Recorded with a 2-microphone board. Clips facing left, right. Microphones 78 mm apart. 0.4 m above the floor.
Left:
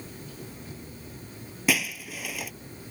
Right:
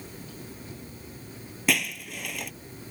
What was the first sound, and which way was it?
Breaking glass, 5° left (ahead or behind).